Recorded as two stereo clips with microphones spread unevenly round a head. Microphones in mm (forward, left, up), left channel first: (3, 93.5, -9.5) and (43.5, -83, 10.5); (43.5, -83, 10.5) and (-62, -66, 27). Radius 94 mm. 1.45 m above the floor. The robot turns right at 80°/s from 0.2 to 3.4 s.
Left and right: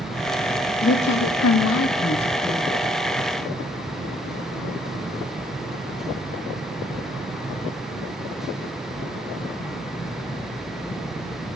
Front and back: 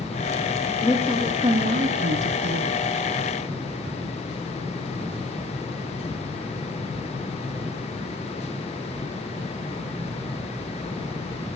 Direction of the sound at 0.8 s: 55° left.